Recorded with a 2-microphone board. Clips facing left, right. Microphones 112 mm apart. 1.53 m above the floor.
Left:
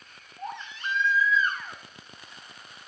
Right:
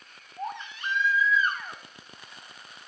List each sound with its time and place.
0.4 s a baby crying: 55° right (ahead or behind), 1.7 m